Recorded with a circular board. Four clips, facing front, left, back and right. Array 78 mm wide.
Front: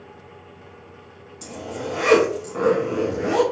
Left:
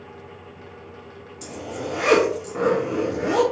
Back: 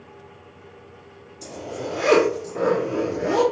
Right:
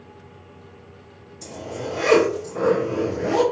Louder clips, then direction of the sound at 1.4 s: Even, even; 35° left.